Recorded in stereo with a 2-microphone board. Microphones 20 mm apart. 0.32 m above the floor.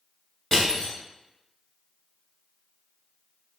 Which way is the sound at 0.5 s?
25° left (ahead or behind).